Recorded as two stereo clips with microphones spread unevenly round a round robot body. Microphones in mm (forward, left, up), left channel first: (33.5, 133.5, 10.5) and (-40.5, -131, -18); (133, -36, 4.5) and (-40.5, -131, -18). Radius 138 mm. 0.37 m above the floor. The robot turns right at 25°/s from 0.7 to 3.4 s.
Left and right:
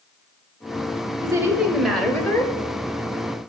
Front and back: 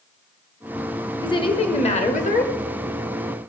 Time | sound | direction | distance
1.2 | a woman speaking | 40° right | 1.3 m